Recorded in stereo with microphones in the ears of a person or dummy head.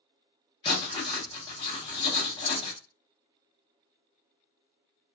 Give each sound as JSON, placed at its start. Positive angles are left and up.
{"t": 0.6, "sound": "writing", "side_deg": 20, "distance_m": 1.0}